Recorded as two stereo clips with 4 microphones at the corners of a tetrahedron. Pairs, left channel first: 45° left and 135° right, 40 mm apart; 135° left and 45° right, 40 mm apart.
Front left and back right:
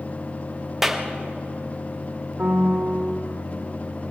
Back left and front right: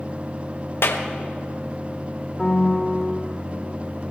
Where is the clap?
140° left, 1.2 m.